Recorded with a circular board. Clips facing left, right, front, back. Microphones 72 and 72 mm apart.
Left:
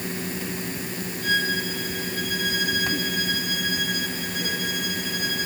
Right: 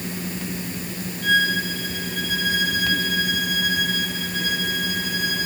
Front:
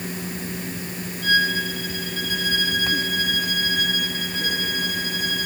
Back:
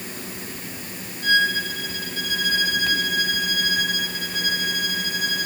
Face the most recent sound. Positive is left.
turn(degrees=-105)